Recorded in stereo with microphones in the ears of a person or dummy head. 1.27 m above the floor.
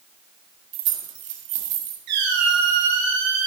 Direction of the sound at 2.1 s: 60° right (ahead or behind).